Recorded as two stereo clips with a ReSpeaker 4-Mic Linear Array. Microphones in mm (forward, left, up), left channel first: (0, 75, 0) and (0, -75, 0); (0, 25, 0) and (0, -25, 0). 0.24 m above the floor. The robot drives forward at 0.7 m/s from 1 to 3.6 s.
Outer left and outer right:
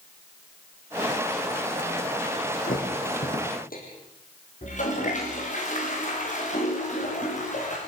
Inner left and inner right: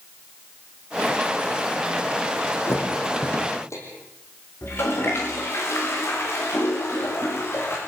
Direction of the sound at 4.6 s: 55° left (ahead or behind).